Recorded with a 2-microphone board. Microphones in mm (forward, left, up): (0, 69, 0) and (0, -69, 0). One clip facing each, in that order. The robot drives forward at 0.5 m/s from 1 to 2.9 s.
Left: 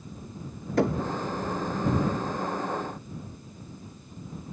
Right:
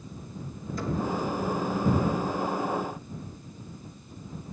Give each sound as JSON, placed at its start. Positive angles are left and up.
{"t": 0.8, "sound": "knocking", "side_deg": 75, "distance_m": 1.2}